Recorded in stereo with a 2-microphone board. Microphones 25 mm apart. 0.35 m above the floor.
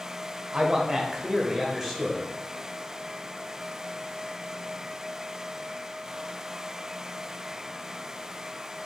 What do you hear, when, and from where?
0.5 s a man speaking: 40° right (ahead or behind), 1.1 m; by 2.2 s 10° right (ahead or behind), 1.2 m